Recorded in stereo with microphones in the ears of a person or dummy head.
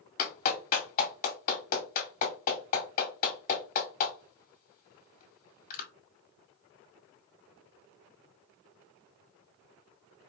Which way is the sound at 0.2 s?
45° left (ahead or behind).